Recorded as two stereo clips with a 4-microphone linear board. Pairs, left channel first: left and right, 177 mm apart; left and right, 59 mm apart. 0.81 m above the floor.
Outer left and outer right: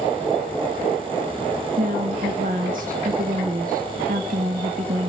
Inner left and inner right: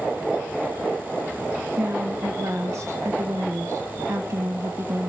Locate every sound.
1.8 s a woman speaking: 50° right (ahead or behind), 1.3 m